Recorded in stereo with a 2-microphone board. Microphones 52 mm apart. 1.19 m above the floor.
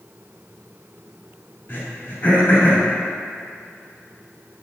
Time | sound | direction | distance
1.7 | throat clearing | 45° left (ahead or behind) | 2 m